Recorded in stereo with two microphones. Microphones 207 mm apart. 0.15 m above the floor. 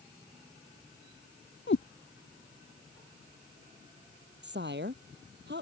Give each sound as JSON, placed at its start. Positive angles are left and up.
{"t": 1.7, "sound": "a cat meowing", "side_deg": 65}
{"t": 4.4, "sound": "a woman speaking", "side_deg": -60}